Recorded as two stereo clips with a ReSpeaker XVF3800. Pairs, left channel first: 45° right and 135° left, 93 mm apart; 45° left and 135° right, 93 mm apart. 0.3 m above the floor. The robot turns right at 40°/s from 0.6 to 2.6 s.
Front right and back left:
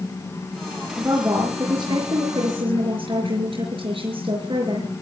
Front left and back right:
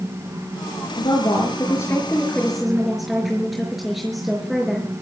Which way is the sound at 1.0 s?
70° left.